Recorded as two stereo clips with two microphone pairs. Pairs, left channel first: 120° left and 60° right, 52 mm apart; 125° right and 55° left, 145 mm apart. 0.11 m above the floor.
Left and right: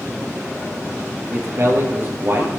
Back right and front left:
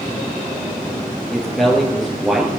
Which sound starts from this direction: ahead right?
A man speaking, at 1.3 s.